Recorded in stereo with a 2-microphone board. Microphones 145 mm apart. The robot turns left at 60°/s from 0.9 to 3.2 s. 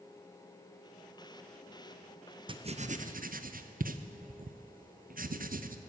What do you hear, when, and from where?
2.5 s writing: 35° right (ahead or behind), 0.5 m; by 5.8 s 75° right (ahead or behind), 0.5 m